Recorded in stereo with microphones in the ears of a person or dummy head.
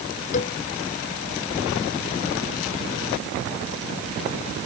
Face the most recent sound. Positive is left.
turn(degrees=45)  # may be behind; listen again after turning